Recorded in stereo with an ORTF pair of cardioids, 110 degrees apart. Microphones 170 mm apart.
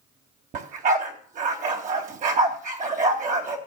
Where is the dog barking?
55° right, 3 m.